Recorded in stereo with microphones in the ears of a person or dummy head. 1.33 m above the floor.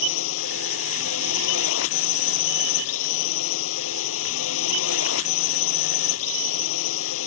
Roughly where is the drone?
Left.